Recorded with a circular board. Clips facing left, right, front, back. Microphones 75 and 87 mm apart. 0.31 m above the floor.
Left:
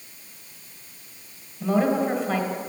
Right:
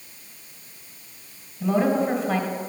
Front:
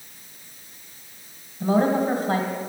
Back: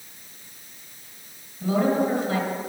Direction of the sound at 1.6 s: 5° left.